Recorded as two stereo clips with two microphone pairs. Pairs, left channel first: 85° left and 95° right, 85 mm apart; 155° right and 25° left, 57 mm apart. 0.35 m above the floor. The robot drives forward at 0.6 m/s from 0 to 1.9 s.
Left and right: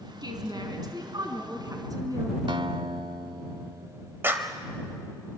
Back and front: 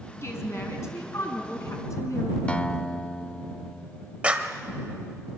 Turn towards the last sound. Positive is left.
turn(degrees=-40)